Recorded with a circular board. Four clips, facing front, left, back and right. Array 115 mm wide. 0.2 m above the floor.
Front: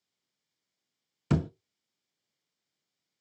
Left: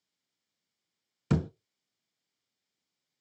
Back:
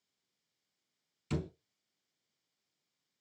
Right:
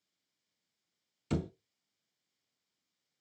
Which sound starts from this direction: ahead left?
A thud, at 1.3 s.